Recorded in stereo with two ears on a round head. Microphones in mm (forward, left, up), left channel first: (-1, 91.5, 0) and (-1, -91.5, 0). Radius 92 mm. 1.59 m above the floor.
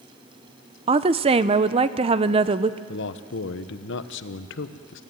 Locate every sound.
0.9 s a woman speaking: 30° right (ahead or behind), 0.6 m
2.9 s a man speaking: 65° left (ahead or behind), 1.0 m